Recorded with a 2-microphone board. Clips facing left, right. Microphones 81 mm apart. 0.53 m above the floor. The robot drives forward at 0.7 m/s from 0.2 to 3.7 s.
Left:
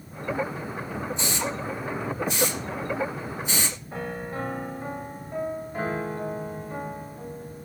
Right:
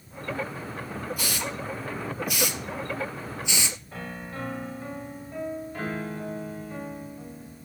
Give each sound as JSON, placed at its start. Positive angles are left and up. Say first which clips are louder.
{"t": 1.2, "sound": "a hiss", "louder": "left 3 dB", "side_deg": 25, "distance_m": 4.0}
{"t": 3.9, "sound": "a piano", "louder": "left 5 dB", "side_deg": 25, "distance_m": 1.5}